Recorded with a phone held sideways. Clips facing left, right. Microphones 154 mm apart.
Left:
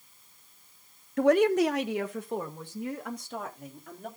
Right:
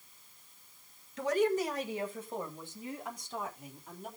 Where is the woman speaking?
55° left (ahead or behind), 0.7 m; by 4.1 s 70° left (ahead or behind), 4.5 m.